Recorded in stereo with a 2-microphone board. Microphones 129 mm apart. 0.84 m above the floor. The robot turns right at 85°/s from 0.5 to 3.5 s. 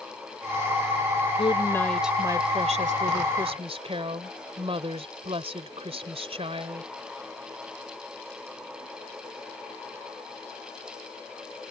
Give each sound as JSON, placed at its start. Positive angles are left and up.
{"t": 1.4, "sound": "a woman speaking", "azimuth_deg": 130}